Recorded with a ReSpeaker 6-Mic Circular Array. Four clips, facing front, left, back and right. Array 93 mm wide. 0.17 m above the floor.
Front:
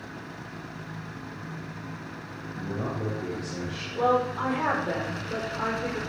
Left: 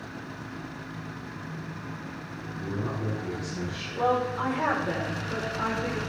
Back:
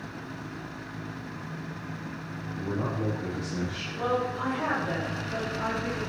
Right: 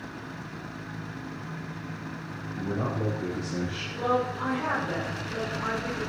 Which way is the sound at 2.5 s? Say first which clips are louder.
Right 3 dB, back 1 dB; 70° right.